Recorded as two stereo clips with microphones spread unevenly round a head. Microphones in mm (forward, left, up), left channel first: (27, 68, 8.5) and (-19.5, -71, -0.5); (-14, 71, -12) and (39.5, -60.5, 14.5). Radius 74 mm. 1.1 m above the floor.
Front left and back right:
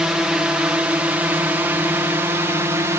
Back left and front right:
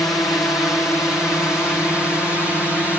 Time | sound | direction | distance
0.0 | a drone | 175° left | ?